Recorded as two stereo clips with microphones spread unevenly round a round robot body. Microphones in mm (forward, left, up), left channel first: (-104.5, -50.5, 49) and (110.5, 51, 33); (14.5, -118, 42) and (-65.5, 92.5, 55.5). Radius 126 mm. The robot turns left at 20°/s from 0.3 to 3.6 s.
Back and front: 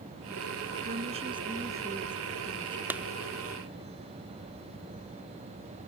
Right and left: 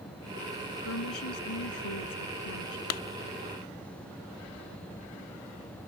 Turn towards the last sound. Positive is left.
turn(degrees=-70)